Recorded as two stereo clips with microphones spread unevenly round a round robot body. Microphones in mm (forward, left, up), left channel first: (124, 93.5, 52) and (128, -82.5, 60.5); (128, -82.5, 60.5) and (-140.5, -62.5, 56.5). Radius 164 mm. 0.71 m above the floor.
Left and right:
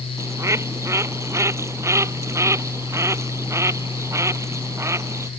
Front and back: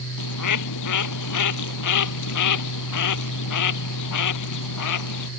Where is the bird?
15° right.